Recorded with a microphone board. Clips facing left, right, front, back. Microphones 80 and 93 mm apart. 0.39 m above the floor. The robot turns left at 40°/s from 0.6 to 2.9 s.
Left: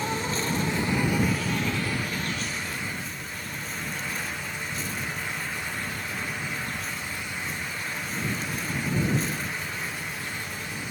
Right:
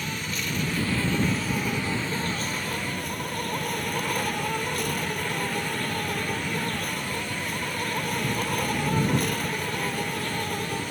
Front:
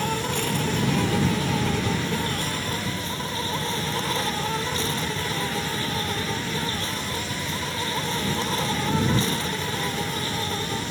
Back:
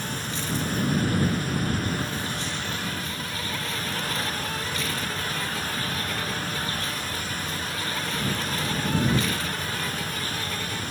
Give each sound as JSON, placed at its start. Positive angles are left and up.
{"t": 0.0, "sound": "an insect", "azimuth_deg": 30}